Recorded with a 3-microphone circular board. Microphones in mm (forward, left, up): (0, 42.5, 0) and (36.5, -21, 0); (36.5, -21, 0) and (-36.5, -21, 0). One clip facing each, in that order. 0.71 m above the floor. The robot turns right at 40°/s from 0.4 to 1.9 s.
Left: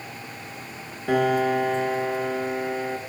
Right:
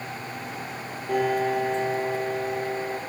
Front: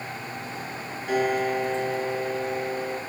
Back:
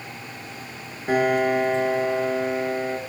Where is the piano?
120° left, 3.5 m; by 3.0 s 155° left, 3.5 m.